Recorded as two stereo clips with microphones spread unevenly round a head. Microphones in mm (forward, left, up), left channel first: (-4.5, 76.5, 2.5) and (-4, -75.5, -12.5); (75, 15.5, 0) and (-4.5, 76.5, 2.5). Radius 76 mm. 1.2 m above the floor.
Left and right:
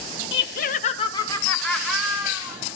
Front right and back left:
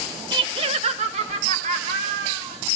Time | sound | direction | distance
0.3 | laughter | 105° left | 1.2 m